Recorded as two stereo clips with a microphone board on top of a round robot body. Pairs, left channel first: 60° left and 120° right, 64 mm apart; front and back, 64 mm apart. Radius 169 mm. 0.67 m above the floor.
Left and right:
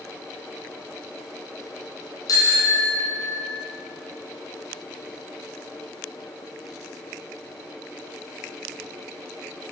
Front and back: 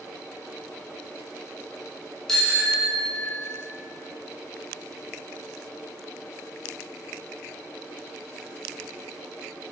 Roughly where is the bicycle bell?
Left.